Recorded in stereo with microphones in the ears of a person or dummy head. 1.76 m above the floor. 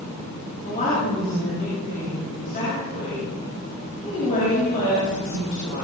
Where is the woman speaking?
45° left (ahead or behind), 9 m.